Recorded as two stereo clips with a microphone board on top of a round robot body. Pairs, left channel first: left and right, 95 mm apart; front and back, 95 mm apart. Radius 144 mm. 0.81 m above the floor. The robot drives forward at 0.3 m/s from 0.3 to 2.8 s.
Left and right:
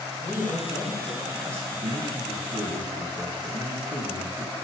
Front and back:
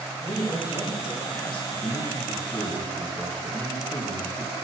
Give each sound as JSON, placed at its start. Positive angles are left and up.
{"t": 0.2, "sound": "a woman speaking", "azimuth_deg": -25, "distance_m": 2.0}
{"t": 1.7, "sound": "a man speaking", "azimuth_deg": -25, "distance_m": 3.0}